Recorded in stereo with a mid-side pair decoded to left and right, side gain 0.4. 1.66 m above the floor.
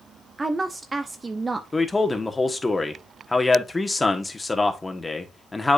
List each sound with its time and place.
0.4 s a woman speaking: 30° right, 0.6 m
1.7 s a man speaking: 20° left, 1.4 m